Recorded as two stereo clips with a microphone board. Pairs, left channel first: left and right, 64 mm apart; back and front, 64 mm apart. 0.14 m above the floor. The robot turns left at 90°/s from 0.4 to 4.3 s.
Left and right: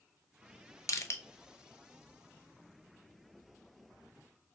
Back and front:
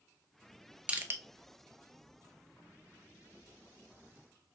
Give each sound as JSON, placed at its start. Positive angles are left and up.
{"t": 0.9, "sound": "crushing", "azimuth_deg": 65, "distance_m": 0.6}